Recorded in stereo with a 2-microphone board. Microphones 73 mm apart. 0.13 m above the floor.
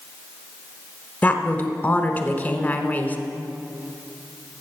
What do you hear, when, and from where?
1.2 s a woman speaking: 25° left (ahead or behind), 1.1 m